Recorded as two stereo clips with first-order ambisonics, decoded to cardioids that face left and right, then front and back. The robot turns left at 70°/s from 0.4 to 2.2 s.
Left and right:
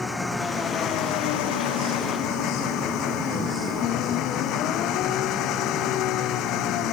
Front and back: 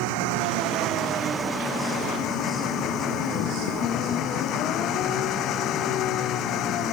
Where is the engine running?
170° left; by 6.9 s 45° left.